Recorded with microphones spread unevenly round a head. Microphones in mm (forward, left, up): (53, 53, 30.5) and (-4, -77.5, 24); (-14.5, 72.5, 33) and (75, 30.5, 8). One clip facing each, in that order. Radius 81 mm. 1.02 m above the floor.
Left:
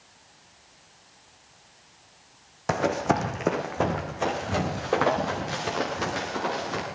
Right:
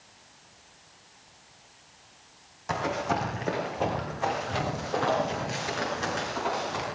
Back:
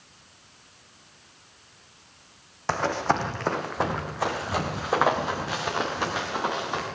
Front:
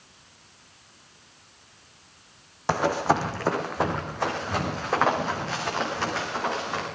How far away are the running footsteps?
About 2.5 m.